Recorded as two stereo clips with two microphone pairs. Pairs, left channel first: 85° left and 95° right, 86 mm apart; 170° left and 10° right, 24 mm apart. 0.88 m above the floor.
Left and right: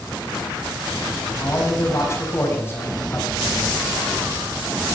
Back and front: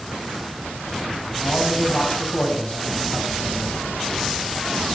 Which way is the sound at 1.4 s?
140° left.